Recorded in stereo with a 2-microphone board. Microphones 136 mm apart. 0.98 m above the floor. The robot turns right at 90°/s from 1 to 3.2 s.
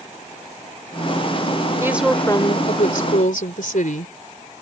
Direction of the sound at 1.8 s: 25° right.